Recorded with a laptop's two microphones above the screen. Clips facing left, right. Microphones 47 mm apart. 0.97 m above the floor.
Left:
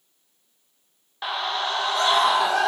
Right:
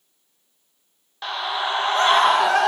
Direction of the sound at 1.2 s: 10° left (ahead or behind).